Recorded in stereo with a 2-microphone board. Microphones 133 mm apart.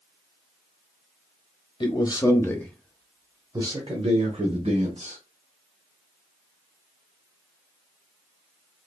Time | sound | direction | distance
1.8 | a man speaking | 40° left (ahead or behind) | 1.2 m